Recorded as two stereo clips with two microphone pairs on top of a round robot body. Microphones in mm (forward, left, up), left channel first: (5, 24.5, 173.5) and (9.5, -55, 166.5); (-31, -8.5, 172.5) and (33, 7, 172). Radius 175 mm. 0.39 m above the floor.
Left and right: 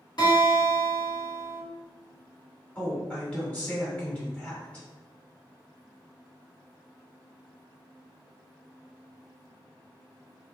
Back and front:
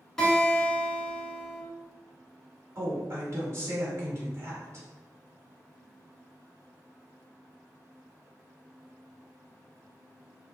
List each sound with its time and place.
0.2 s a guitar: 115° left, 1.8 m
2.8 s a woman speaking: 20° left, 1.8 m